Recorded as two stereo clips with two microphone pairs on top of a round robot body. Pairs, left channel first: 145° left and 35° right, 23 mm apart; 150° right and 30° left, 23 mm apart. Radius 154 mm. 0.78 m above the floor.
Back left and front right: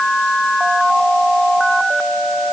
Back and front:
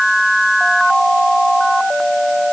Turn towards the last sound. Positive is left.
No sound to turn to.